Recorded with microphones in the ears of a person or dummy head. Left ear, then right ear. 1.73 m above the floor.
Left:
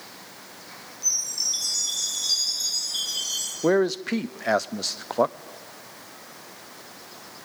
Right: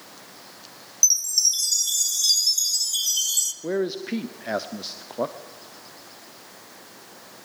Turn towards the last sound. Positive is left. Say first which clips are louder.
# left 5 dB
turn(degrees=45)  # may be behind; listen again after turning